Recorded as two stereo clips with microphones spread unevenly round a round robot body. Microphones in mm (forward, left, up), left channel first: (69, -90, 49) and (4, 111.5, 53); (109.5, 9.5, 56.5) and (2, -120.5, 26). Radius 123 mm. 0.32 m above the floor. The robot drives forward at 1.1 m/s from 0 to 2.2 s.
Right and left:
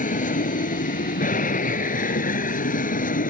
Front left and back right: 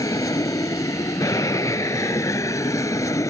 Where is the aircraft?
20° right.